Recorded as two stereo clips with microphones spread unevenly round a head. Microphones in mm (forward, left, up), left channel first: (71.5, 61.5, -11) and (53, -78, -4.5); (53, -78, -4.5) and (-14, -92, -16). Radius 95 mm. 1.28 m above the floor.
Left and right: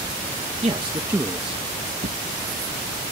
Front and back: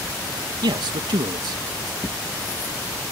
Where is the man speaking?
160° right; by 1.9 s 170° left.